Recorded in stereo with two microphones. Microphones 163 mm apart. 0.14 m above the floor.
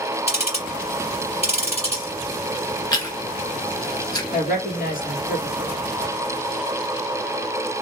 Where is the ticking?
40° left (ahead or behind), 3 m.